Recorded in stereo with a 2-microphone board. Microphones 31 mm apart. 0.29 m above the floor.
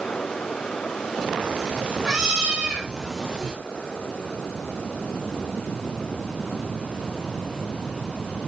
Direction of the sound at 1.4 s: 30° right (ahead or behind).